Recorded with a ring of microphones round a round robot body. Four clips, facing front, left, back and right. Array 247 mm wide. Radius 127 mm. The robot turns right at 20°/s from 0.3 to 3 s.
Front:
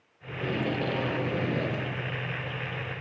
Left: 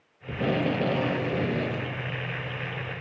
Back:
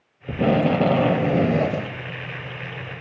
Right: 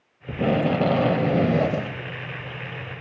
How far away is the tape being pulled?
About 1.7 m.